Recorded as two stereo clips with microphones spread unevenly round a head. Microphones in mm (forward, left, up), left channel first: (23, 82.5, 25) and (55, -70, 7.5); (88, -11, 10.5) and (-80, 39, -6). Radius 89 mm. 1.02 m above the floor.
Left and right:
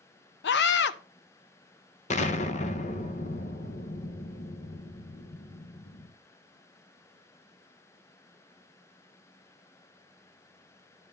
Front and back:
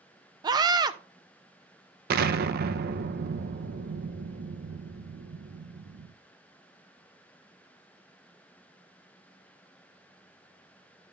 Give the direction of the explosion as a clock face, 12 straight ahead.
7 o'clock.